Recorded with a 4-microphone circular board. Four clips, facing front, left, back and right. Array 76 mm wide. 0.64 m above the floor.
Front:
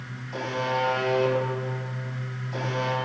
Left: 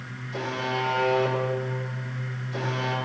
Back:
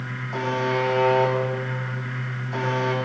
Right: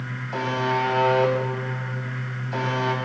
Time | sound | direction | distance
0.3 | a buzzer | 110° right | 3.5 m